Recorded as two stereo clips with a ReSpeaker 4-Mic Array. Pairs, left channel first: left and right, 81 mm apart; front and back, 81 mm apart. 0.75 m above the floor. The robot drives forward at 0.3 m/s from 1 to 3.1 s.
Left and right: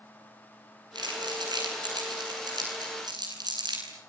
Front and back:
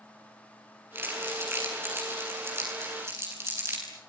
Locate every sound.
0.9 s crumpling: 120° right, 8.5 m; by 3.8 s 125° right, 9 m